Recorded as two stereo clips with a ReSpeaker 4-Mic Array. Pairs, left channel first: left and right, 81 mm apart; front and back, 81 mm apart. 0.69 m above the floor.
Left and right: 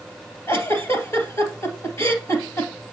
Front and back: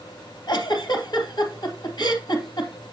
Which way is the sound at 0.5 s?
35° left.